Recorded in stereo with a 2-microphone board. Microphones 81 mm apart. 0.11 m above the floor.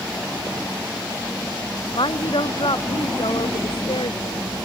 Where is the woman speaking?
70° left (ahead or behind); by 4.5 s 75° left (ahead or behind).